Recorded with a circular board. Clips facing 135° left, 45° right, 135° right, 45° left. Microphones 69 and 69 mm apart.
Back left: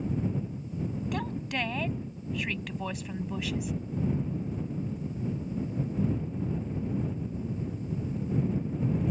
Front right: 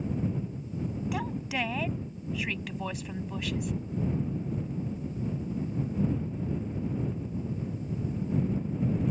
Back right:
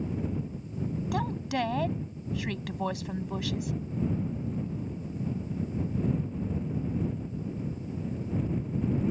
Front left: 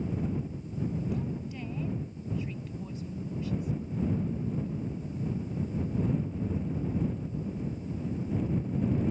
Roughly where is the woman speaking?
Behind right.